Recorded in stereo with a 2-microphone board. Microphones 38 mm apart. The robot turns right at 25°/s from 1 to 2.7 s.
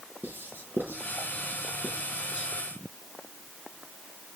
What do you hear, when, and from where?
0.2 s writing: 60° right (ahead or behind), 6 m; by 2.5 s 25° right (ahead or behind), 6 m